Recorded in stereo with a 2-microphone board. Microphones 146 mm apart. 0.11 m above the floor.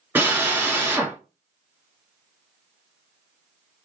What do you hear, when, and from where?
0.1 s a drill: 15° right (ahead or behind), 1.1 m